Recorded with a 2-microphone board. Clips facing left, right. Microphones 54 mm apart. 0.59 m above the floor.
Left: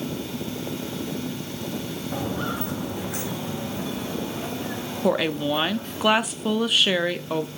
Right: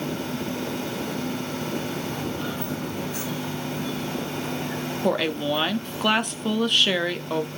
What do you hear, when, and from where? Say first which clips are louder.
2.1 s footsteps: left 2 dB; 75° left (ahead or behind), 1.8 m
5.0 s a woman speaking: left 2 dB; 5° left (ahead or behind), 0.7 m